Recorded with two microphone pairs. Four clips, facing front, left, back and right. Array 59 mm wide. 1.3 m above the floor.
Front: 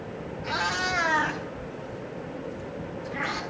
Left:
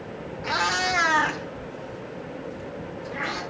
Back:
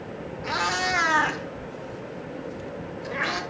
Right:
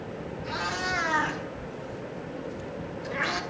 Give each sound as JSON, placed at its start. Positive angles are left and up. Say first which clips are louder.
{"t": 0.4, "sound": "a cat meowing", "louder": "left 6 dB, back 2 dB", "azimuth_deg": 125, "distance_m": 1.5}